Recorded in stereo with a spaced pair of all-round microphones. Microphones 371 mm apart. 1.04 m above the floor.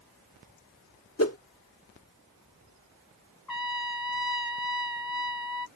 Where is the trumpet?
65° left (ahead or behind).